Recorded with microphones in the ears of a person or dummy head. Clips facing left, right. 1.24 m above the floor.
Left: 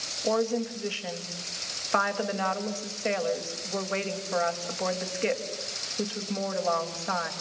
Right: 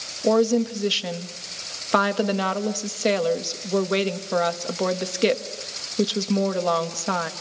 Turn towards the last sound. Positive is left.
turn(degrees=-45)  # may be behind; listen again after turning